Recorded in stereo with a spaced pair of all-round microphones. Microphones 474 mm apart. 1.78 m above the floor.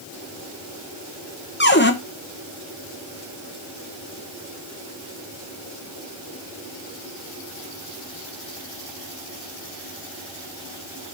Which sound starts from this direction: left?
A cupboard door, at 1.6 s.